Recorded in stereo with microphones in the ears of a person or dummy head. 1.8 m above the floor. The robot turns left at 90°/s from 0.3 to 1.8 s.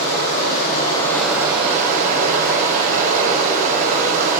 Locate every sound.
0.0 s running water: 85° left, 3.5 m; by 4.4 s 50° right, 3.5 m